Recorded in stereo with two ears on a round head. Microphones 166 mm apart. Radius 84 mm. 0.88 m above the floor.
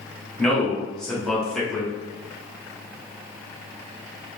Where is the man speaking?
5° left (ahead or behind), 1.2 m.